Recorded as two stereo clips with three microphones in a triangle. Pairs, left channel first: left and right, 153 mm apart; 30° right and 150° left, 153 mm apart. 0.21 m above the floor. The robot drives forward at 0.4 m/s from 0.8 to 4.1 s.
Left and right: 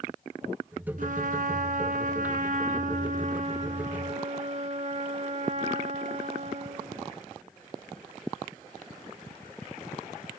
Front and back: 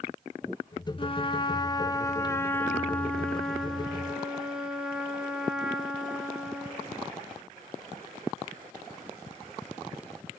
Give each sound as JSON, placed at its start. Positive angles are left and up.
{"t": 1.0, "sound": "a trumpet", "azimuth_deg": -80, "distance_m": 1.5}